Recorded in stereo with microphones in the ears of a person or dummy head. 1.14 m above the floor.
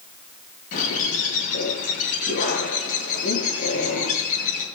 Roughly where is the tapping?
I don't hear tapping.